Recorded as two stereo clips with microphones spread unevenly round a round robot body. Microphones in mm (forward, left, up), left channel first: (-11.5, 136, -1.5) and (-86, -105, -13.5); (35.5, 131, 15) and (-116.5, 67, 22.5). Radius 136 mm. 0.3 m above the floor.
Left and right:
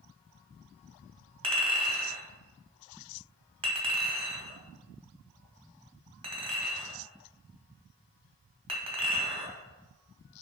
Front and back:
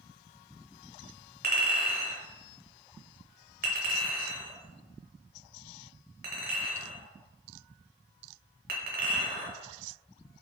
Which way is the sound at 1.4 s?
170° right.